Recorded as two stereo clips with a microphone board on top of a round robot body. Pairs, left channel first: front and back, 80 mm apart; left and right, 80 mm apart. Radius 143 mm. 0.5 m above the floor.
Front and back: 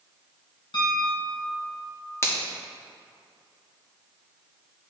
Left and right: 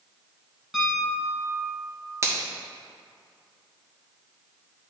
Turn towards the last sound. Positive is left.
turn(degrees=-50)